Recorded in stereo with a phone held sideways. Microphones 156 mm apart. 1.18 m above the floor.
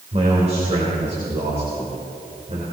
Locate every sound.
0.1 s a man speaking: 40° right (ahead or behind), 3.5 m